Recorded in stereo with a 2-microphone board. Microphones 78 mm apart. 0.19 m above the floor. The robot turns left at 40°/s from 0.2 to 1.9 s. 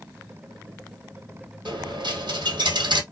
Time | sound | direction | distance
1.6 | a dropped coin | 80° right | 1.5 m